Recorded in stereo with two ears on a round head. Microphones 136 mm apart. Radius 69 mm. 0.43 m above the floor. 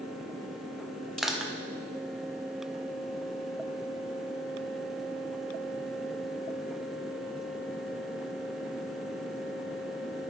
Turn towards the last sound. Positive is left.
turn(degrees=0)  # may be behind; listen again after turning